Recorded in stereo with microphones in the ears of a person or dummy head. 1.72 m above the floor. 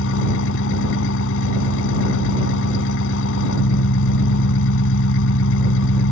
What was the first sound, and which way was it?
An engine running, 75° left (ahead or behind).